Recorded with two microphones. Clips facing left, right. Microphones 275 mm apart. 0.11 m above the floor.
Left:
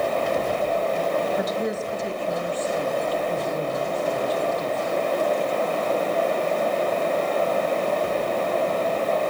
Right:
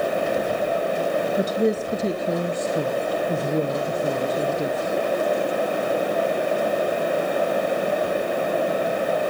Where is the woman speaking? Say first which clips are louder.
Right 5 dB; 30° right (ahead or behind), 1.4 m; by 5.0 s 50° right (ahead or behind), 4 m.